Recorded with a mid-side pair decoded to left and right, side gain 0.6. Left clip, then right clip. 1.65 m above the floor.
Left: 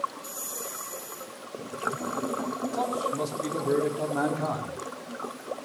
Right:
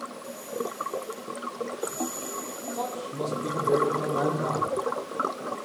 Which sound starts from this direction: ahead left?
A man speaking, at 2.7 s.